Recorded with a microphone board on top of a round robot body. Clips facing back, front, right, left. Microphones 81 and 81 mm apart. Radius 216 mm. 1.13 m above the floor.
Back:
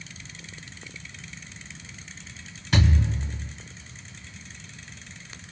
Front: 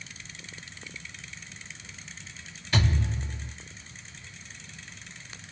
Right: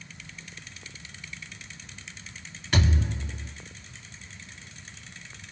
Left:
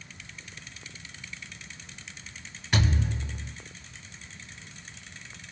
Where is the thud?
175° left, 1.6 m.